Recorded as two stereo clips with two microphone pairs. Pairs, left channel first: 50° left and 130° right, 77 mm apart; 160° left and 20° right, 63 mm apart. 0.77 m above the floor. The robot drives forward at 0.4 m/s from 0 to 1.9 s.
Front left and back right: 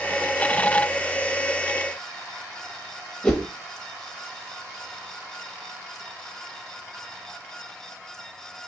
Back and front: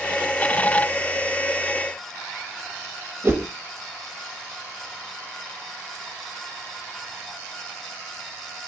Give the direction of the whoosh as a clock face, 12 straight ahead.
1 o'clock.